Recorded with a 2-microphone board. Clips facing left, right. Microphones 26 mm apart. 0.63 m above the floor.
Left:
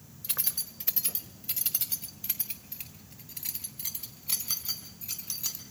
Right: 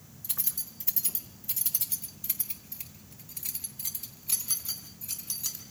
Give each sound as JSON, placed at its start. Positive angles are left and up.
{"t": 0.2, "sound": "keys jangling", "side_deg": 50, "distance_m": 1.4}